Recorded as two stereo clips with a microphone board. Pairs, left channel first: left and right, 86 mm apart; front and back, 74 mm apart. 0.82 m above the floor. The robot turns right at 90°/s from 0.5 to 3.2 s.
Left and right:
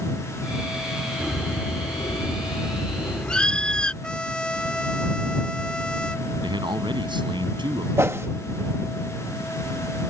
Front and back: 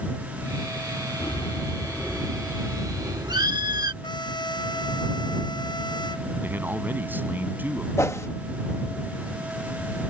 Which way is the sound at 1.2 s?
10° right.